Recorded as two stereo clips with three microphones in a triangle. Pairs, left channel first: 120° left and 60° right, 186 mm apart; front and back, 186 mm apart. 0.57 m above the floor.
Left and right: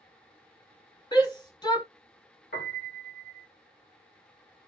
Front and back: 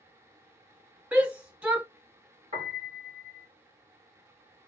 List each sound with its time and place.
1.1 s a shout: 110° left, 1.3 m
2.5 s a piano: 125° left, 1.8 m